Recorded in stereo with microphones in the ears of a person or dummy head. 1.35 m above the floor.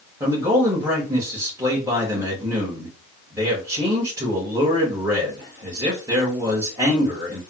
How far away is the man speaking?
About 1.5 m.